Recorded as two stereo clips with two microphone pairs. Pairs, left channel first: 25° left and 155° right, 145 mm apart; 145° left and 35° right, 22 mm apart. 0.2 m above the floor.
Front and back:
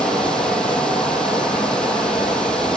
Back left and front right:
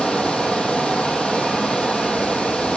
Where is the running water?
110° left, 2 m.